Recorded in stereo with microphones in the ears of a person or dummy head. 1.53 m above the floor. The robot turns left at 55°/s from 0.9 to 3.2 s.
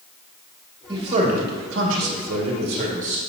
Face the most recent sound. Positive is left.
turn(degrees=-155)